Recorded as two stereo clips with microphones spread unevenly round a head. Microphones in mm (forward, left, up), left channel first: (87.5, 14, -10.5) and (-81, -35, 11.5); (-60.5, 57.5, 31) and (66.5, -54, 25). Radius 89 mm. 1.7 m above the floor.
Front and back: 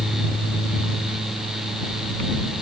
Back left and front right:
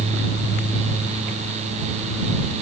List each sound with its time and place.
Only background noise.